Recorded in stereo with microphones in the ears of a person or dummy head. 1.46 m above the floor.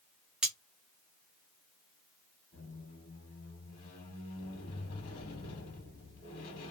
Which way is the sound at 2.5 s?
40° left (ahead or behind).